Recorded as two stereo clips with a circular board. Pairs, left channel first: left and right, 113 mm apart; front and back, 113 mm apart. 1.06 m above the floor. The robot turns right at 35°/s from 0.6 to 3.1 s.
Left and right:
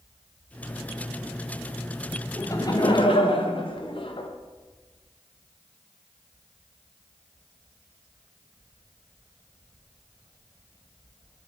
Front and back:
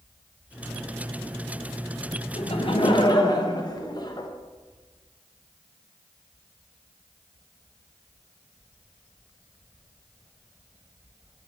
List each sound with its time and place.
2.4 s laughter: 25° left, 0.8 m; by 4.3 s 50° left, 0.8 m